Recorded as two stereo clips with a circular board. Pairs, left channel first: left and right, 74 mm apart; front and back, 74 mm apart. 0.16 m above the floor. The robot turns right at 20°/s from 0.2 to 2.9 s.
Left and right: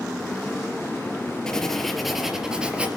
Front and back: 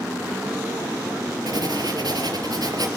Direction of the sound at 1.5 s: 170° left.